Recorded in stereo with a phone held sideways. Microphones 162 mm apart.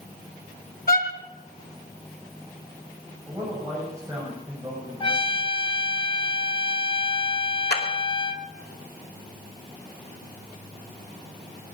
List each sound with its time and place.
0.9 s a violin: 65° left (ahead or behind), 2.5 m
3.3 s a man speaking: 15° right (ahead or behind), 6.5 m
5.0 s a trumpet: 30° left (ahead or behind), 1.0 m
7.7 s a clap: 80° left, 2.5 m